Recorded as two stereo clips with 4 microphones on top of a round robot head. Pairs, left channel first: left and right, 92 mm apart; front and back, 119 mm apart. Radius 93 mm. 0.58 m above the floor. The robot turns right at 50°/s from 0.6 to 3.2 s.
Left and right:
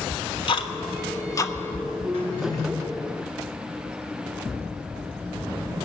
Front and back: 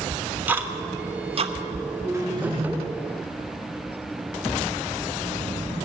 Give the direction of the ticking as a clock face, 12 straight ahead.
8 o'clock.